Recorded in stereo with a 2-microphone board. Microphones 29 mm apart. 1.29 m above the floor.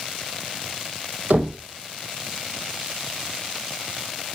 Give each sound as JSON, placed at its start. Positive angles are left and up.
{"t": 1.3, "sound": "knocking", "side_deg": -75, "distance_m": 3.5}